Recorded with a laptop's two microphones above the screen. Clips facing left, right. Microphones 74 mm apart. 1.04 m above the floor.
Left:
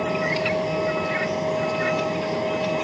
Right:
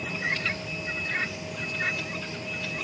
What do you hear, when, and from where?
0.0 s a vehicle: 60° left (ahead or behind)